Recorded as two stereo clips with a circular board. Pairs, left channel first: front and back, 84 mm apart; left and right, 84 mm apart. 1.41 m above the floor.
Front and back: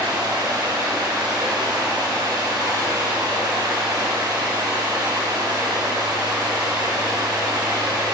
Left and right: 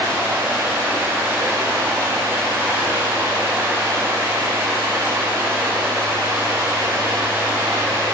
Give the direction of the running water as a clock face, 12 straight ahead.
5 o'clock.